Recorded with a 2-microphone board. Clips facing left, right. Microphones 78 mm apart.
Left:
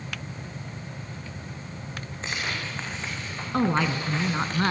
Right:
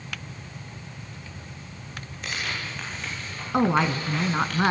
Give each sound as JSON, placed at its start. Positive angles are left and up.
{"t": 2.2, "sound": "tearing paper", "side_deg": 30, "distance_m": 8.5}
{"t": 3.5, "sound": "a woman speaking", "side_deg": -20, "distance_m": 1.6}